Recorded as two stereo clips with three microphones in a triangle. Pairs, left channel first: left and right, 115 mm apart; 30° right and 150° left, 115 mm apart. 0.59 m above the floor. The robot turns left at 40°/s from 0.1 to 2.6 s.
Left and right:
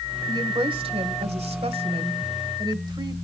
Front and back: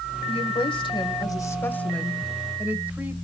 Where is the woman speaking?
45° right, 2 m; by 3.1 s 135° right, 2 m.